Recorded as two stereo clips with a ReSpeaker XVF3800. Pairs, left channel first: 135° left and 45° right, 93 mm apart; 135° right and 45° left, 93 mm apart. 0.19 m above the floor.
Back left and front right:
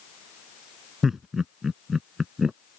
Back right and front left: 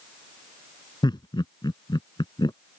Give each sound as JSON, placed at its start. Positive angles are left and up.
{"t": 1.0, "sound": "laughter", "azimuth_deg": -130}